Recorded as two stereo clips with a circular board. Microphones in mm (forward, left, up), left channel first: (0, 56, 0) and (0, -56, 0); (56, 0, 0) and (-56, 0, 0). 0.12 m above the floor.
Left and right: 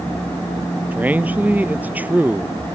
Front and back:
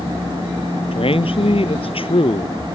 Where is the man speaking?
15° right.